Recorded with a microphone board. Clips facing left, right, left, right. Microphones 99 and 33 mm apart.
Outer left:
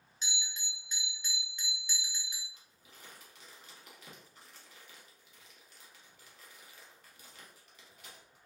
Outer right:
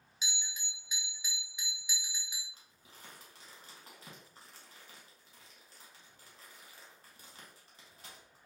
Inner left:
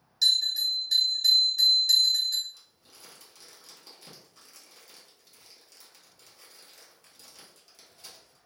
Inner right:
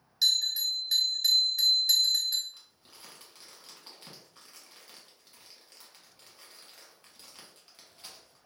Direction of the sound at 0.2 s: 10° right (ahead or behind).